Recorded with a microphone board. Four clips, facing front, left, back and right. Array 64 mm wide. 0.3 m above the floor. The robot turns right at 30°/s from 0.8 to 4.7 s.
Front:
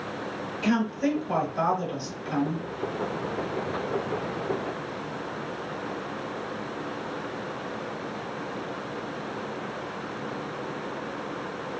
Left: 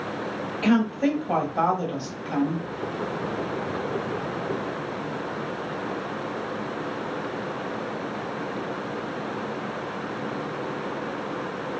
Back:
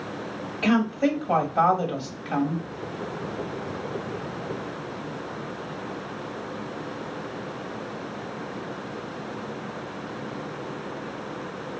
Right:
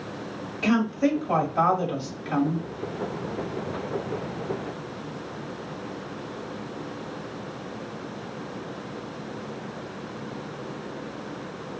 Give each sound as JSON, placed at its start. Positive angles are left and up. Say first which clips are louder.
{"t": 0.6, "sound": "a woman speaking", "louder": "left 1 dB, back 3 dB", "azimuth_deg": 150, "distance_m": 1.0}